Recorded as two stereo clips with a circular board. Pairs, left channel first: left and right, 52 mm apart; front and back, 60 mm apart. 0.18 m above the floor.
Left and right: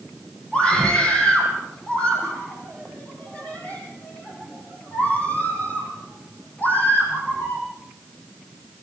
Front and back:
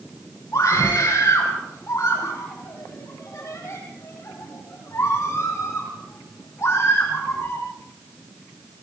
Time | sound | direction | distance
0.5 | a scream | 15° left | 7 m